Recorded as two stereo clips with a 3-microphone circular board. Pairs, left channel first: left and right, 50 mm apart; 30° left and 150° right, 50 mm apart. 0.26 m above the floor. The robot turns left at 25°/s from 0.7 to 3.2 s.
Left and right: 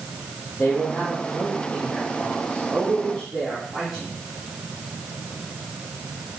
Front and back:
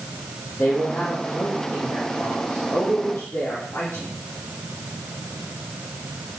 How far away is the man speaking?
About 4.5 m.